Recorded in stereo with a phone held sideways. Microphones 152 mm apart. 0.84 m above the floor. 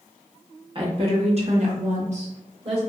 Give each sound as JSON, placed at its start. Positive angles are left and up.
{"t": 0.8, "sound": "a woman speaking", "side_deg": -35, "distance_m": 1.1}